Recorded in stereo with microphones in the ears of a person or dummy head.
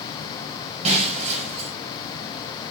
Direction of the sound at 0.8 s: 40° right (ahead or behind).